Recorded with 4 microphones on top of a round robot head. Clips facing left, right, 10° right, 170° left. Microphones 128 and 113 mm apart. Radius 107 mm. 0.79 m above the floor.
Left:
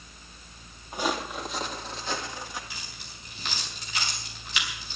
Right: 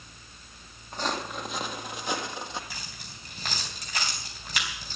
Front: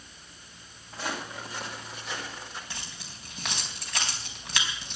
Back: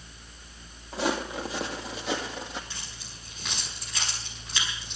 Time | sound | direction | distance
0.9 | footsteps | 170° left | 1.9 m
2.7 | keys jangling | 35° right | 4 m